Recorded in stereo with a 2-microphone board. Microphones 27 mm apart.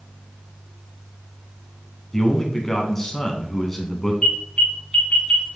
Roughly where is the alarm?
Left.